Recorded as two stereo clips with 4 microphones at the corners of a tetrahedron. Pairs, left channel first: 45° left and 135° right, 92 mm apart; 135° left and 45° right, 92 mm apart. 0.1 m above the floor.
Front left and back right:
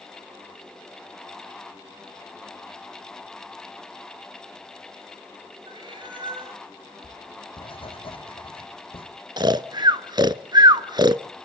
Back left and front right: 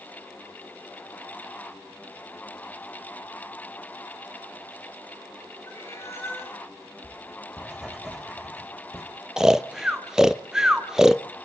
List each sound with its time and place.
5.7 s a cat meowing: 165° right, 6.5 m
7.0 s writing: 40° left, 6.5 m
9.4 s snoring: 125° right, 0.6 m